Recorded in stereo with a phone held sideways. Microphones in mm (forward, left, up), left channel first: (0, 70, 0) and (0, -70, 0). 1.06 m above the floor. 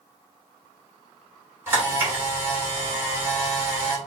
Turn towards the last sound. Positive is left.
turn(degrees=-15)  # may be behind; listen again after turning